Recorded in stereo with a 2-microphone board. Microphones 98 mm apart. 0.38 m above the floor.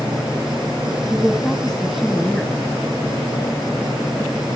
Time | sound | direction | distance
1.1 | a woman speaking | 5° left (ahead or behind) | 2.5 m